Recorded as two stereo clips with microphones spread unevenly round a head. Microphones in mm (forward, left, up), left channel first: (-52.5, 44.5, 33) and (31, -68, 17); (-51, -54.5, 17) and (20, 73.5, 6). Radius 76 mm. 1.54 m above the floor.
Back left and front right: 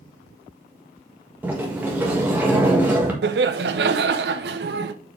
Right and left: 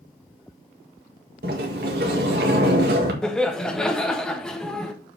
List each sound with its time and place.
1.4 s a sliding door: 25° left, 1.6 m
3.2 s laughter: 35° right, 0.9 m